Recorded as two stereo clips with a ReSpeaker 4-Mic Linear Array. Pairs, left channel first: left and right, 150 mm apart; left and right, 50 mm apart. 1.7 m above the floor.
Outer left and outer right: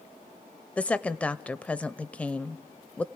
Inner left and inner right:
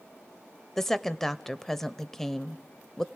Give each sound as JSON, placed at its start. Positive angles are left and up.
{"t": 0.8, "sound": "a woman speaking", "side_deg": 10, "distance_m": 0.5}